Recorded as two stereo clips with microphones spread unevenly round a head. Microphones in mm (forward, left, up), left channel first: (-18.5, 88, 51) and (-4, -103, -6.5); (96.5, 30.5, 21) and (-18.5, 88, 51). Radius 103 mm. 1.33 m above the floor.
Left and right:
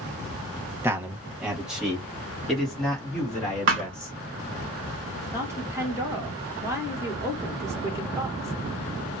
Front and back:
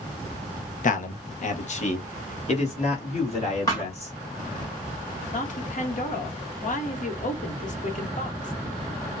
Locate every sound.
0.8 s a man speaking: 5° right, 0.9 m; by 4.2 s 10° left, 2.5 m
3.7 s a thud: 110° right, 1.0 m
5.3 s a woman speaking: 10° right, 1.4 m